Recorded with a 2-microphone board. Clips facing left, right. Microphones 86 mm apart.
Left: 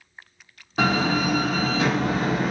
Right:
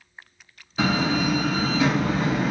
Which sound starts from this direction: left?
A door slam, at 0.8 s.